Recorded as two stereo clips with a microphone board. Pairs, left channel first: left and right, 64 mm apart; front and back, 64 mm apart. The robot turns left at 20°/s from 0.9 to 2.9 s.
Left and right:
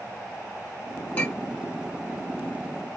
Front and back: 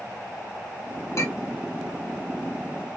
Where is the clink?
30° left, 2 m; by 1.5 s 25° left, 2 m.